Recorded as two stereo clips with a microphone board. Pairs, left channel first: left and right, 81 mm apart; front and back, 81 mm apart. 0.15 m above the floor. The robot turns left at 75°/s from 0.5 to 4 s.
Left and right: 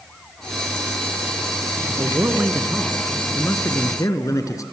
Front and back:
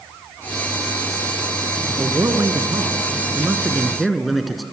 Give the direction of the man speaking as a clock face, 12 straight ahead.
4 o'clock.